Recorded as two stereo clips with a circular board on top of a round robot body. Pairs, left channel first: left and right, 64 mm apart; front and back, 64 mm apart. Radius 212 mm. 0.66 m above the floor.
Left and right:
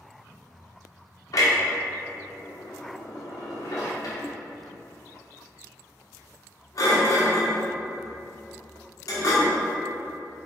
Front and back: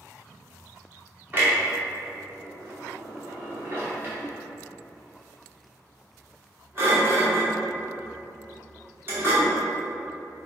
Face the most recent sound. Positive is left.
turn(degrees=120)